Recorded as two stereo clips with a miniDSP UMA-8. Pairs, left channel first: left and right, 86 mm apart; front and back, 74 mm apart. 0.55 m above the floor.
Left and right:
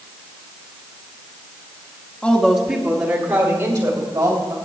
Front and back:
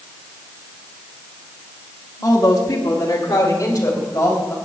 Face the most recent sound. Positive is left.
turn(degrees=-60)